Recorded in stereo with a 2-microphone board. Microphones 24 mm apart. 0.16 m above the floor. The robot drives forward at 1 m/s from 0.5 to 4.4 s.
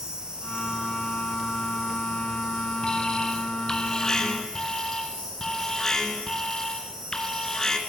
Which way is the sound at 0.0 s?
35° right (ahead or behind).